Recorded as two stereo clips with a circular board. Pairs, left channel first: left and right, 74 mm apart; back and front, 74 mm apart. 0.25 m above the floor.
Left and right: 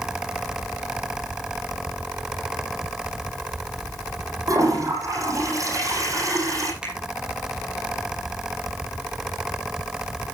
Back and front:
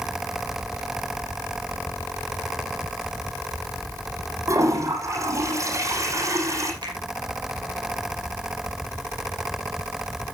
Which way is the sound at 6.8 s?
10° right.